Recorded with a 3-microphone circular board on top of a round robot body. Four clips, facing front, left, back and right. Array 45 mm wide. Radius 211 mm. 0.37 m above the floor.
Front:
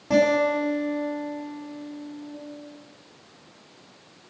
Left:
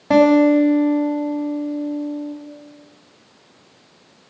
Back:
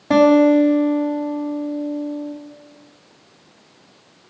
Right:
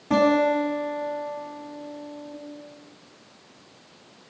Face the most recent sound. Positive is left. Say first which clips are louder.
# left 7 dB, back 8 dB
turn(degrees=125)